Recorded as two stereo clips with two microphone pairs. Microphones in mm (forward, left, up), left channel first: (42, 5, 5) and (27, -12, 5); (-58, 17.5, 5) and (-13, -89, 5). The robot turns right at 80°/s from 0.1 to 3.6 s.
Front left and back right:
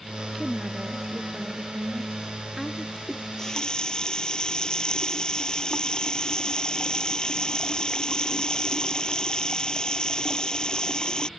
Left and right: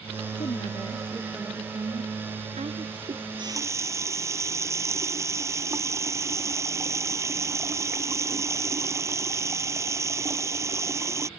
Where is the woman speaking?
135° left; by 3.0 s 20° right.